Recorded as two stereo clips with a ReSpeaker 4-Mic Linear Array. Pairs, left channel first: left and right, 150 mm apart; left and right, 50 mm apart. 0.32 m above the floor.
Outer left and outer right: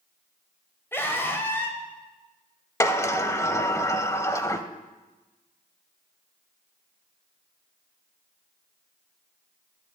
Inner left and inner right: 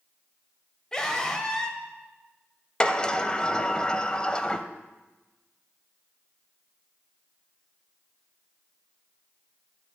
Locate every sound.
0.9 s a scream: 15° left (ahead or behind), 1.5 m
2.8 s a sliding door: 20° left (ahead or behind), 0.6 m